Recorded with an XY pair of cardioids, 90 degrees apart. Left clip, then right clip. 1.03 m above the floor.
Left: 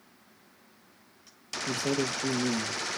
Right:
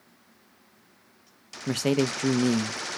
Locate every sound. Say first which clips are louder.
1.7 s a man speaking: right 4 dB; 65° right, 0.5 m